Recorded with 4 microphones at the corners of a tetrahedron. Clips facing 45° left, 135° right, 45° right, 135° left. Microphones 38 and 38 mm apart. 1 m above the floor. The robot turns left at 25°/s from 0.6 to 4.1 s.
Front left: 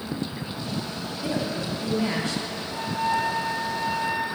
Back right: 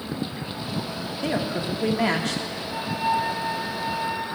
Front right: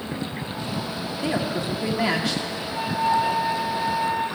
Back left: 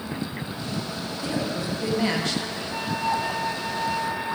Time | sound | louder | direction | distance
1.2 | a woman speaking | back right 2 dB, front right 3 dB | 100° right | 1.2 m
2.7 | a flute | back right 1 dB, front right 4 dB | 165° left | 4 m